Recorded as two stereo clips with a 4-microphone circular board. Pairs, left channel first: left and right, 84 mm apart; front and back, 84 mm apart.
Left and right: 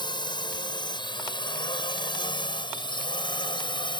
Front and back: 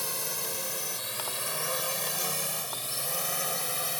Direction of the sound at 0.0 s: 90° left.